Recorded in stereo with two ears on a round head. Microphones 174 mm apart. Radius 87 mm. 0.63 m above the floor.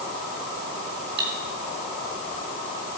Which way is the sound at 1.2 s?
55° right (ahead or behind).